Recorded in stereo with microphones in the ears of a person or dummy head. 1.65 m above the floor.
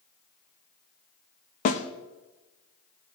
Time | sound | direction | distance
1.6 | a snare drum | 40° left (ahead or behind) | 1.2 m